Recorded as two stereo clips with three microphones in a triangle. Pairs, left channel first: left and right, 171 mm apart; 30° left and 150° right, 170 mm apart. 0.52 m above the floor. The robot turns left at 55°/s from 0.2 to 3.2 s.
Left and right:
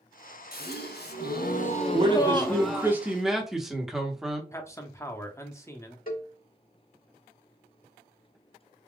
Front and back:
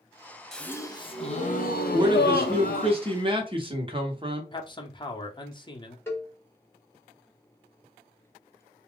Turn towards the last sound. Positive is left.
turn(degrees=105)